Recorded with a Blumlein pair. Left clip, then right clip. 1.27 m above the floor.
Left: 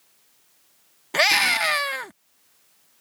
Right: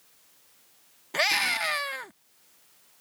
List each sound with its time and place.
1.1 s a scream: 20° left